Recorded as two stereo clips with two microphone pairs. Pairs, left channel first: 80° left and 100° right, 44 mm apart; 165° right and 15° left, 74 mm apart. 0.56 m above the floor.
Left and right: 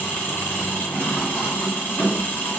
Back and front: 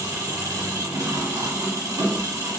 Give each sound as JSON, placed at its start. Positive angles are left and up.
{"t": 0.0, "sound": "an engine running", "azimuth_deg": 45, "distance_m": 1.5}